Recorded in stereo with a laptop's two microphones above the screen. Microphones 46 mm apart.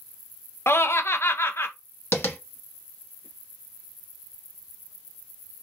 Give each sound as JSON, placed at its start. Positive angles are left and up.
{"t": 0.7, "sound": "laughter", "side_deg": 65, "distance_m": 0.6}
{"t": 2.1, "sound": "tapping", "side_deg": 65, "distance_m": 1.0}